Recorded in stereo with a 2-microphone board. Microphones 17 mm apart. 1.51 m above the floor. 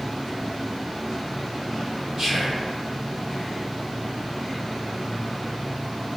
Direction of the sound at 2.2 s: 80° right.